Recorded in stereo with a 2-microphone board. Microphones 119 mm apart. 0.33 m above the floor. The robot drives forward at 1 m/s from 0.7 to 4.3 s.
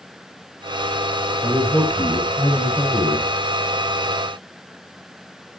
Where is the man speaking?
5° left (ahead or behind), 4 m.